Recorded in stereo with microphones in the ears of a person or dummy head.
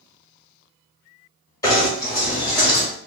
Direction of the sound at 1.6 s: 15° left (ahead or behind).